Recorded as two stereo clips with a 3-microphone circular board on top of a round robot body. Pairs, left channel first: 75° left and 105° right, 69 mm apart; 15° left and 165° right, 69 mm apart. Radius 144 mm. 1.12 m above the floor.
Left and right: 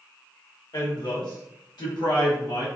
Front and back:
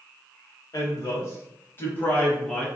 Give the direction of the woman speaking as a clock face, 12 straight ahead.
10 o'clock.